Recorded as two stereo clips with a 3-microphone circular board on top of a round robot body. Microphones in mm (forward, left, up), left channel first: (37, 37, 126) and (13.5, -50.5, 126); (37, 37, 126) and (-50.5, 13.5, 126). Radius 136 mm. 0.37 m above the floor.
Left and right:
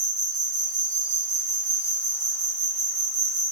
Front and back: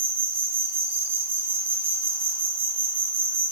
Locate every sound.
0.0 s an insect: 145° right, 1.6 m